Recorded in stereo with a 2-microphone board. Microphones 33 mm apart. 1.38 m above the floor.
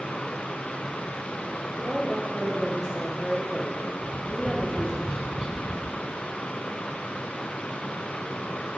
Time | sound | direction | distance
1.8 | a woman speaking | 25° right (ahead or behind) | 1.0 m
4.0 | tapping | 25° right (ahead or behind) | 1.1 m